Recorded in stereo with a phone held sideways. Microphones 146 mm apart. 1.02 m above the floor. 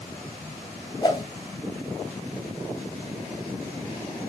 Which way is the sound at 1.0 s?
30° left (ahead or behind).